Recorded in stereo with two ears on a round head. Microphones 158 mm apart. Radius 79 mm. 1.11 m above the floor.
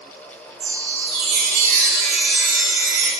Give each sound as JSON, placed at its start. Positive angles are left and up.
{"t": 0.6, "sound": "a chime", "side_deg": -80, "distance_m": 3.0}